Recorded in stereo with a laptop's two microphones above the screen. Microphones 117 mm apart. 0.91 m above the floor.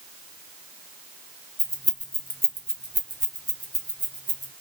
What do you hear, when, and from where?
1.6 s keys jangling: 75° left (ahead or behind), 0.8 m; by 4.5 s 40° right (ahead or behind), 1.8 m